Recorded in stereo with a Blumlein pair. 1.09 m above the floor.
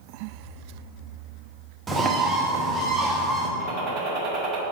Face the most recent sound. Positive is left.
turn(degrees=-40)